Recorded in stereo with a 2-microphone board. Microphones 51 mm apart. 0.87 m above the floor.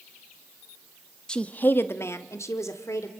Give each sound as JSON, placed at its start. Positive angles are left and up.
{"t": 1.3, "sound": "a woman speaking", "side_deg": 15, "distance_m": 1.0}